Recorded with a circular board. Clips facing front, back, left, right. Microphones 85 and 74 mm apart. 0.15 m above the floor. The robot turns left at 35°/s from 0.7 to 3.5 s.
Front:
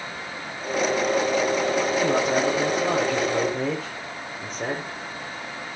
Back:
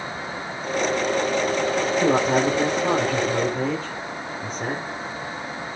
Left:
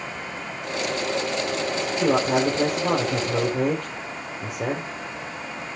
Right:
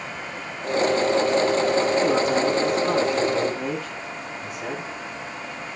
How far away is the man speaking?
About 5 m.